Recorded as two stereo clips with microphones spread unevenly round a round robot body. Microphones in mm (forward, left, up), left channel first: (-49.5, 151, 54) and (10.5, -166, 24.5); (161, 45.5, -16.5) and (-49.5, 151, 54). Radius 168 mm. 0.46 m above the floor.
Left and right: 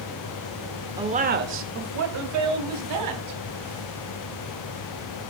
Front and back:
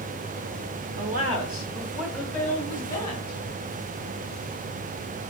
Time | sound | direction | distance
1.0 | a woman speaking | 150° right | 1.2 m